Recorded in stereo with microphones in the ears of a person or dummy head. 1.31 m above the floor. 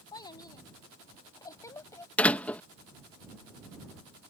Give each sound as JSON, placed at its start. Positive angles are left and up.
{"t": 0.1, "sound": "a child speaking", "side_deg": 25}
{"t": 2.2, "sound": "a door slam", "side_deg": 10}